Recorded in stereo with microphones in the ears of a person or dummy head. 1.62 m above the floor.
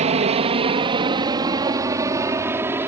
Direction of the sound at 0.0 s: 35° right (ahead or behind).